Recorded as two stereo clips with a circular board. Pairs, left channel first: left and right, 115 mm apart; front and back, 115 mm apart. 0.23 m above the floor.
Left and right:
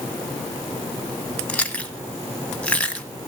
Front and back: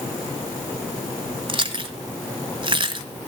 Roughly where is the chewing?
Behind.